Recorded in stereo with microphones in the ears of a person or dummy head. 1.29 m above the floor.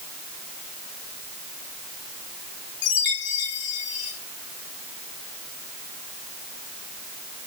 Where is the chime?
50° left (ahead or behind), 1.2 m.